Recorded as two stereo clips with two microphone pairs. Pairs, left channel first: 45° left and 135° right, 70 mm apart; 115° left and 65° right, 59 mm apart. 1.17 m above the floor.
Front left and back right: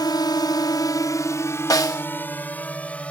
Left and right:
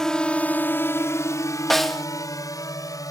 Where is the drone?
40° left; by 3.1 s 120° left.